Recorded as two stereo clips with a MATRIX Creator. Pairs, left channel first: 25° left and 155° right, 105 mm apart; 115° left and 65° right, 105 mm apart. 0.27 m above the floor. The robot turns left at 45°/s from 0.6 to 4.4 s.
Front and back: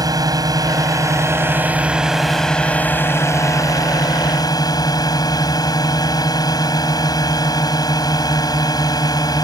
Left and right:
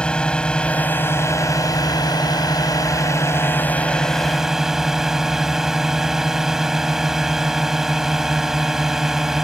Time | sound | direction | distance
0.0 | a drone | 175° right | ?